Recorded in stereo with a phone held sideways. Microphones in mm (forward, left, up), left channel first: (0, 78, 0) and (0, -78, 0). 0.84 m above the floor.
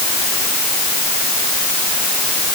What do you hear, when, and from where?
Only background noise.